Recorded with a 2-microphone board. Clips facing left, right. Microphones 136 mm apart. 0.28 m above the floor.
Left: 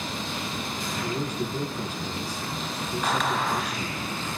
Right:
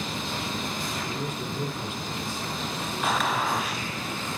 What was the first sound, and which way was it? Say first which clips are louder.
A man speaking: left 3 dB; 40° left (ahead or behind).